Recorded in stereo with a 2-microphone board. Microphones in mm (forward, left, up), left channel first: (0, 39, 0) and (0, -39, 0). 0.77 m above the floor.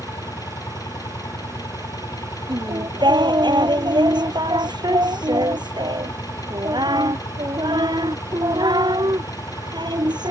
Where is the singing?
70° right (ahead or behind).